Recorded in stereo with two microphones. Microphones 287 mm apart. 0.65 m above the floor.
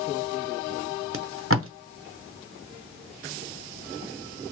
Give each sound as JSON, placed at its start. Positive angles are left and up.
{"t": 1.1, "sound": "tape being pulled", "side_deg": -50, "distance_m": 0.6}